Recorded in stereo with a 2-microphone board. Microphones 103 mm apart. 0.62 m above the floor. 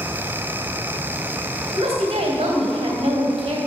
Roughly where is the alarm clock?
I don't hear an alarm clock.